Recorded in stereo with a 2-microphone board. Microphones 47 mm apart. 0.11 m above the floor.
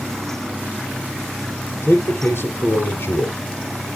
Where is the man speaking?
60° left (ahead or behind), 2.5 m.